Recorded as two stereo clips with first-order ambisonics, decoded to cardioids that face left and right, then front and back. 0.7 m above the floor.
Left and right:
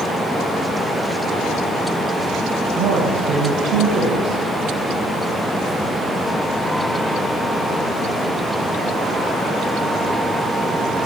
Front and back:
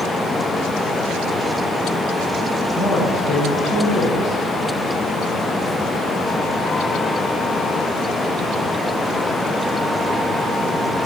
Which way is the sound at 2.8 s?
50° right.